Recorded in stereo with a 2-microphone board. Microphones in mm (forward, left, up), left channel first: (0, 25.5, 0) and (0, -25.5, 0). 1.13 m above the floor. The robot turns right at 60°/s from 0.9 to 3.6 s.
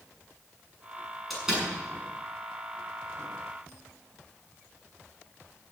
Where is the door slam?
Centre (ahead or behind), 6.5 m; by 1.7 s 25° right (ahead or behind), 6.5 m.